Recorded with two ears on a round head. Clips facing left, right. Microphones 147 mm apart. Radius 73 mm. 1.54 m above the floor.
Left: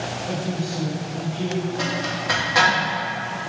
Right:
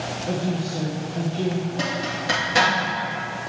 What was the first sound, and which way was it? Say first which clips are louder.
A woman speaking: right 3 dB; 40° right (ahead or behind).